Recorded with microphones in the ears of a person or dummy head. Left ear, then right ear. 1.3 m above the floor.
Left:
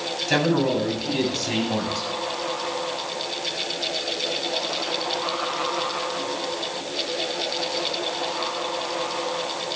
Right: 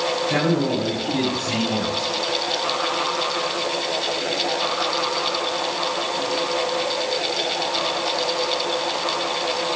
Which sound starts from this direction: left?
A man speaking, at 0.3 s.